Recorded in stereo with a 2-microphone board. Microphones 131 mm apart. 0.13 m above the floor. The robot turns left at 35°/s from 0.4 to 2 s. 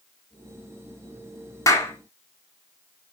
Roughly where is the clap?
Left.